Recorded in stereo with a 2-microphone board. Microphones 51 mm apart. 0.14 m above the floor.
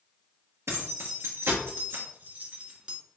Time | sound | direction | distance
0.7 | keys jangling | 65° right (ahead or behind) | 2.5 m